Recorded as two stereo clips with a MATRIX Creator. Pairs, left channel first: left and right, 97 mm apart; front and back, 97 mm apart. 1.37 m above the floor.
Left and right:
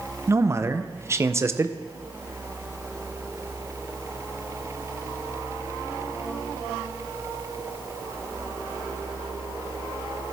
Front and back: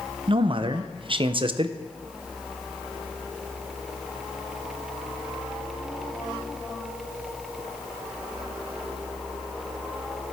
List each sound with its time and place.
0.3 s a man speaking: 150° right, 0.6 m